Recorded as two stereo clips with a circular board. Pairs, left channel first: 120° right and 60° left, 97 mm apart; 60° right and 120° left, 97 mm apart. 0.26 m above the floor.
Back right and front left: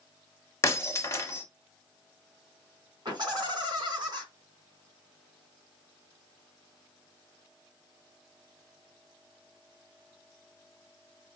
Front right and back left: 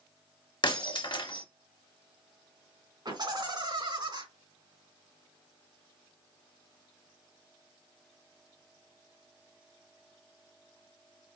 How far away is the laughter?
About 2.5 m.